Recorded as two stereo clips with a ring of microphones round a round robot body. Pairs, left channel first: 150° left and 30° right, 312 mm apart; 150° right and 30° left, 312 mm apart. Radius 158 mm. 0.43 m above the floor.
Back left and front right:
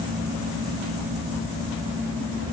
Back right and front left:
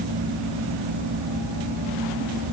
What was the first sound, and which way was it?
Only background noise.